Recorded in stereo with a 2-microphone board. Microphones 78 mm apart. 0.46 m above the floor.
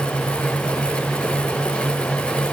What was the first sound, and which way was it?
Only background noise.